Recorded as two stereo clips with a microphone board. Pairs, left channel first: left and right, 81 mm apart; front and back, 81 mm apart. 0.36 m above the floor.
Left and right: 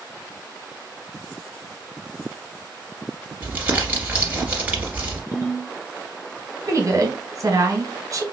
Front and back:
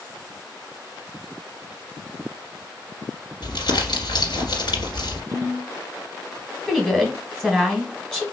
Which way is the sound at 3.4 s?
20° right.